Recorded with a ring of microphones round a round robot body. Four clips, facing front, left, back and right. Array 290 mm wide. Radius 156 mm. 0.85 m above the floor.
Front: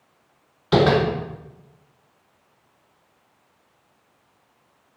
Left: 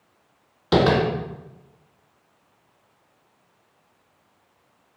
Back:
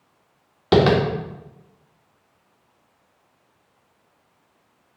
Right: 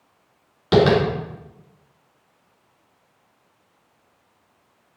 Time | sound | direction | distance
0.7 | tapping | 175° right | 3 m